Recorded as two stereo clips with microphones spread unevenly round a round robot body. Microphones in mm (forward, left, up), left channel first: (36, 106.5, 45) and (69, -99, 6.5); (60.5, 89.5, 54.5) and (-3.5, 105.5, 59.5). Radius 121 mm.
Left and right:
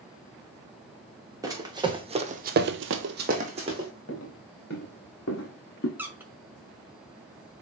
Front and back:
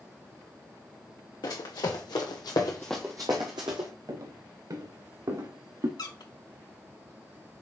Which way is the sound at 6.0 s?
Straight ahead.